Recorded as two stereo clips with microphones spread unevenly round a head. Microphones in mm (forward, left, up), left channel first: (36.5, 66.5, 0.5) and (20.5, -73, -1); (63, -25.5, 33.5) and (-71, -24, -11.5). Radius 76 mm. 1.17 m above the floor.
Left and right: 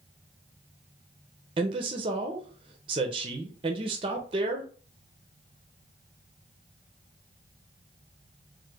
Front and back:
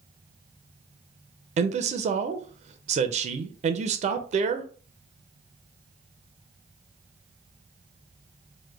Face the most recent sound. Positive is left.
turn(degrees=-155)